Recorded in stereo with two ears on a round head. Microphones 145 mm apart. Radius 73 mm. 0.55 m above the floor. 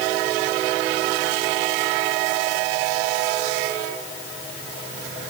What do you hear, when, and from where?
Only background noise.